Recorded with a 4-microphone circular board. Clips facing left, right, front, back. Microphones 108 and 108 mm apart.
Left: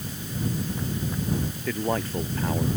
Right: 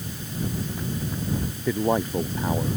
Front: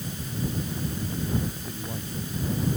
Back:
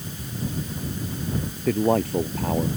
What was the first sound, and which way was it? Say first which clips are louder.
A man speaking: right 5 dB, back 15 dB; 165° right.